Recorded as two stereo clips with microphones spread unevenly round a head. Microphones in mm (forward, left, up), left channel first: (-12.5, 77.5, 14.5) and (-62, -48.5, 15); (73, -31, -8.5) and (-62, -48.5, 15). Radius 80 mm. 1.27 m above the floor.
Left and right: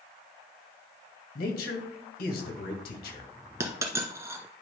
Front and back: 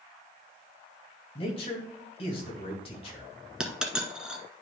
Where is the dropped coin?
130° right, 1.2 m.